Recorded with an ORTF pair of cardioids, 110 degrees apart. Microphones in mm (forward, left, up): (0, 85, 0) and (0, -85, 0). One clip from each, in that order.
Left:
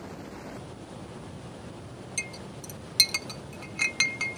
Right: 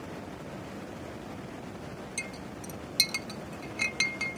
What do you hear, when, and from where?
2.2 s a clink: 15° left